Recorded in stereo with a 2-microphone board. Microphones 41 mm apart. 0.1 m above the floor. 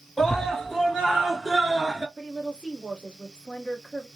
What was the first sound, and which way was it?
A scream, 5° left (ahead or behind).